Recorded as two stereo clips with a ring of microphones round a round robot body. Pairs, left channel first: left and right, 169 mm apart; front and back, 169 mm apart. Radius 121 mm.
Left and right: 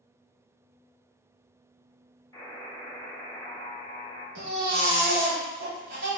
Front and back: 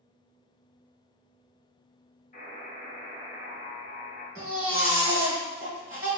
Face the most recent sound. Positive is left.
turn(degrees=-105)